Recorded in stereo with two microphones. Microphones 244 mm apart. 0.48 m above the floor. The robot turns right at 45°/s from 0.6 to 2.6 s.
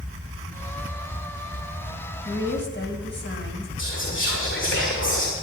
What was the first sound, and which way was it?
A woman speaking, 65° left (ahead or behind).